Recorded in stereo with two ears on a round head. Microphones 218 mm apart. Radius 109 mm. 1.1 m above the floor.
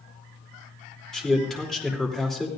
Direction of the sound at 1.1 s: Centre (ahead or behind).